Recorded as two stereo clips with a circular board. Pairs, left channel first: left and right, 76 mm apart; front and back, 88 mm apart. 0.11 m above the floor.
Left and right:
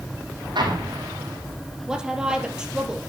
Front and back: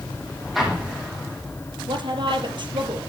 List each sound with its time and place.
0.6 s an explosion: 95° right, 4.5 m
1.9 s a woman speaking: 170° right, 3 m